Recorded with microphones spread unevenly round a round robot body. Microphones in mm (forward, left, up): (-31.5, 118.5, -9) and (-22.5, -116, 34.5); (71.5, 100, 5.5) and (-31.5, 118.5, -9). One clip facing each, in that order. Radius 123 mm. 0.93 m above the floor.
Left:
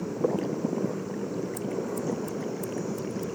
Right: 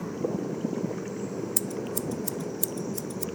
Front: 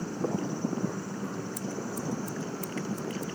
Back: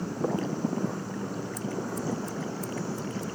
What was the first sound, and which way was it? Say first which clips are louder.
Scissors: left 2 dB, back 2 dB; 80° right.